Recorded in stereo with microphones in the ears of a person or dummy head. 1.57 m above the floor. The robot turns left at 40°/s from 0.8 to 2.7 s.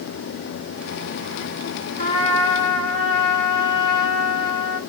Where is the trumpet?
40° left (ahead or behind), 2.5 m; by 4.8 s 70° left (ahead or behind), 2.5 m.